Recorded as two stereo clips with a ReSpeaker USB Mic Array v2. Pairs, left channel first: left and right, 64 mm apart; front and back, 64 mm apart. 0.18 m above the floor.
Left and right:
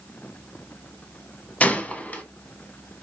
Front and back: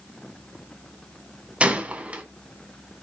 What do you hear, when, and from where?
1.6 s a gunshot: 135° left, 0.7 m